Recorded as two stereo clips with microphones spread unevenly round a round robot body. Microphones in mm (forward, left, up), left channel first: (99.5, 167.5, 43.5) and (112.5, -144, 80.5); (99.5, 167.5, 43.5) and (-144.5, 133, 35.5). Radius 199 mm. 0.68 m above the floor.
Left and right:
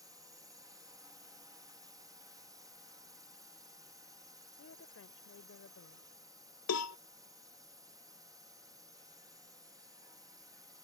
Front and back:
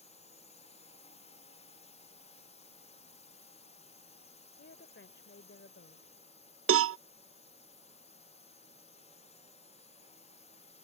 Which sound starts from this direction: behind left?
A cowbell, at 6.7 s.